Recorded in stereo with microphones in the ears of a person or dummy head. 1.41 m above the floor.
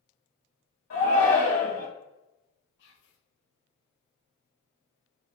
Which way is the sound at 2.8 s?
65° left (ahead or behind).